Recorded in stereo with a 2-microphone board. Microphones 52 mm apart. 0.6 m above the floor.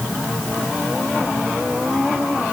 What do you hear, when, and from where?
Only background noise.